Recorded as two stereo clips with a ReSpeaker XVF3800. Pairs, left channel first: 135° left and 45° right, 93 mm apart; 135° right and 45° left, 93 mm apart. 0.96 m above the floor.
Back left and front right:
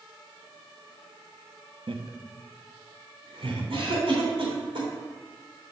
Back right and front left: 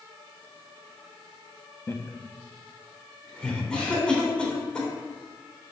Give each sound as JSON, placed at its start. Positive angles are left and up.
{"t": 1.9, "sound": "laughter", "azimuth_deg": -70, "distance_m": 1.0}
{"t": 3.7, "sound": "a cough", "azimuth_deg": -55, "distance_m": 3.0}